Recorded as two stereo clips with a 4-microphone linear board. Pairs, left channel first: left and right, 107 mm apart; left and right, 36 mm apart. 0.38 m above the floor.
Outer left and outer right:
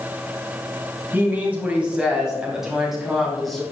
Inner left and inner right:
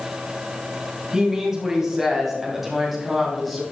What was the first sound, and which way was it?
A woman speaking, 15° right (ahead or behind).